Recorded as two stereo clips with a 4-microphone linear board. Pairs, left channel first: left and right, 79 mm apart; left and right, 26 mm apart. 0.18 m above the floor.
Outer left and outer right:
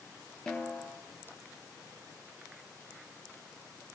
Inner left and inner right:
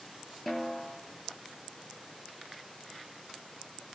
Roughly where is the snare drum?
Centre.